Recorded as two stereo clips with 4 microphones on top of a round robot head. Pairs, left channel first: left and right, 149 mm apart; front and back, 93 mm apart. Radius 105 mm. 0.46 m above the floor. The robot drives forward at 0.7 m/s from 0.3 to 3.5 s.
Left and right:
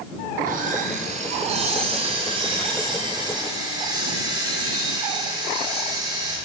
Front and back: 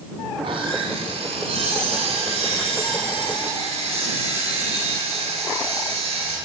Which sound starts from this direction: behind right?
Sawing, at 0.4 s.